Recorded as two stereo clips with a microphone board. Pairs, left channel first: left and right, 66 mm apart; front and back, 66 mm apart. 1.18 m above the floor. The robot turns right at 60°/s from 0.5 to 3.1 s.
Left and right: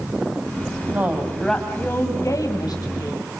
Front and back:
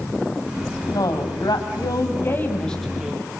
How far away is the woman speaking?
About 6 m.